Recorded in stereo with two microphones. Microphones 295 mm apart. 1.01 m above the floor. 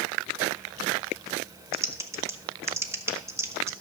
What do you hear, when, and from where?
1.7 s typing on a keyboard: 10° right (ahead or behind), 1.1 m